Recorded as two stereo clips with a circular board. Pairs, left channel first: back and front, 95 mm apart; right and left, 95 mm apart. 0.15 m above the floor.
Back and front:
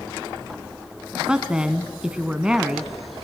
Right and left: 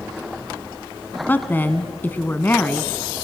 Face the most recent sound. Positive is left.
turn(degrees=-65)